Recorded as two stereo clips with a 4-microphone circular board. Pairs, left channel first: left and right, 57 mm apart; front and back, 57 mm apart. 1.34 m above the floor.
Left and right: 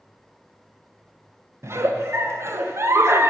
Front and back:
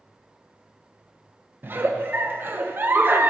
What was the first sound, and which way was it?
A giggle, 130° right.